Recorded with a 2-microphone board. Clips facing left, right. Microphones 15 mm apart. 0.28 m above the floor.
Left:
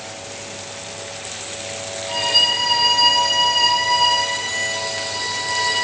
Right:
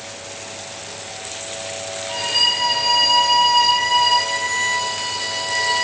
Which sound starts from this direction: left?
A violin, at 2.1 s.